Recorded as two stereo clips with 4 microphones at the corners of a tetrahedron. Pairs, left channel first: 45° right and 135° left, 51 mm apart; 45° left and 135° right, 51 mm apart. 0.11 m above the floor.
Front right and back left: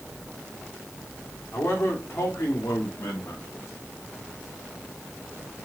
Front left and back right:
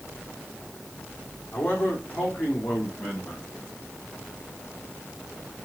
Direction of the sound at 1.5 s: 10° right.